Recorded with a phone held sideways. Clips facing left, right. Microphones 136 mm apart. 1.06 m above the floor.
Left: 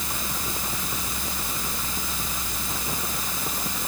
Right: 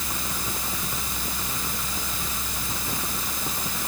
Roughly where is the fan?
Centre.